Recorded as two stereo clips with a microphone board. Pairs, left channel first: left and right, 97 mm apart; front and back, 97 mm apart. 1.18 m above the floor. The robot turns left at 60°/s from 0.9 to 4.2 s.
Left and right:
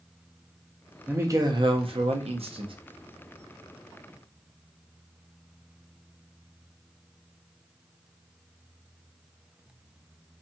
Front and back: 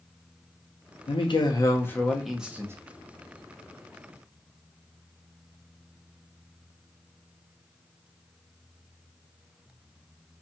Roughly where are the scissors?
I don't hear scissors.